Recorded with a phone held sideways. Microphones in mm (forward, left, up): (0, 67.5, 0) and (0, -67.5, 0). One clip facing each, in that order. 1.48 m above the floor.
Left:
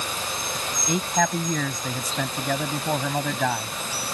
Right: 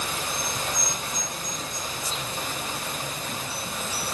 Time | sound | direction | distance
0.9 | a man speaking | 90° left | ?